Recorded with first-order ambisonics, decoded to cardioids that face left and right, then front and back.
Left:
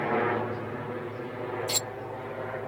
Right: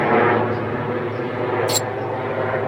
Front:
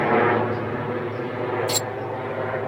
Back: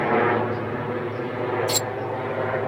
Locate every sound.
0.0 s a helicopter: 80° right; by 2.7 s 95° right
1.7 s cutlery clinking: 90° right